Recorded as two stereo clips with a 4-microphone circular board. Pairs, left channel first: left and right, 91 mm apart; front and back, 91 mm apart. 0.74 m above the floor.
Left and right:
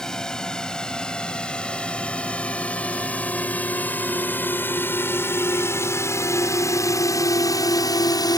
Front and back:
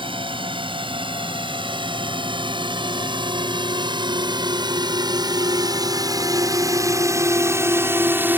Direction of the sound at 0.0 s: 175° left.